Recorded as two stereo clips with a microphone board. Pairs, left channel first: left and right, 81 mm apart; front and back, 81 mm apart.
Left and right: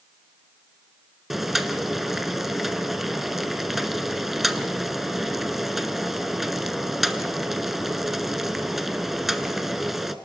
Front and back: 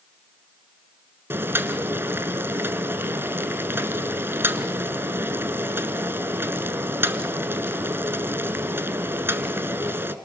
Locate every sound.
1.3 s boiling: 175° right, 1.0 m